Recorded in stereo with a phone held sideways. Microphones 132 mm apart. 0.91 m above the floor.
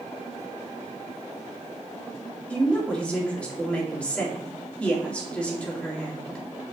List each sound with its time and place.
2.5 s a woman speaking: 10° left (ahead or behind), 2.5 m